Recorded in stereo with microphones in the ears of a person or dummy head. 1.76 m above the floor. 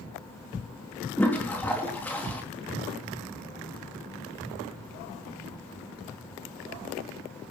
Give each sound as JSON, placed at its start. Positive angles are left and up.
{"t": 1.2, "sound": "a toilet flushing", "side_deg": 5, "distance_m": 3.0}